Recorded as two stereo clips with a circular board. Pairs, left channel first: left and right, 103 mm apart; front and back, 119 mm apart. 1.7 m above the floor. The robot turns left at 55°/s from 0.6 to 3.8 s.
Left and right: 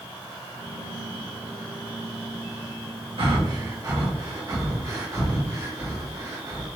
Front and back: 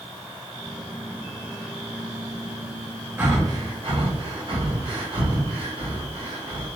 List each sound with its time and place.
3.2 s breathing: 110° right, 1.3 m; by 6.7 s 145° right, 1.3 m